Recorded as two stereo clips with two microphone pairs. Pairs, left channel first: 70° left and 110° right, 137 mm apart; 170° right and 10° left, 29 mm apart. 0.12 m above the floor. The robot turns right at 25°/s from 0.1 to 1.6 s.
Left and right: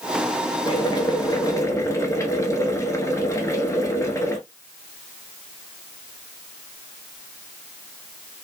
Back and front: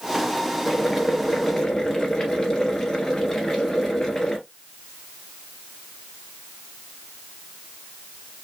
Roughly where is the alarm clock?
No alarm clock in this recording.